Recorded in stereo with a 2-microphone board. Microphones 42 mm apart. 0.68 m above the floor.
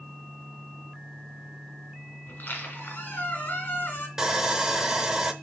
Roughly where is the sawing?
Centre.